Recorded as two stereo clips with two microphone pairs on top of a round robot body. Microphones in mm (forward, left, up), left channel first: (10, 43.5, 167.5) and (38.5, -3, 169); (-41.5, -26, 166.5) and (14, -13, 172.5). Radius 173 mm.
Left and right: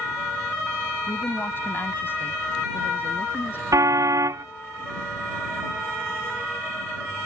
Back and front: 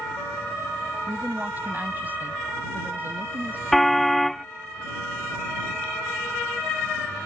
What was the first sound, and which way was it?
A woman speaking, 75° left.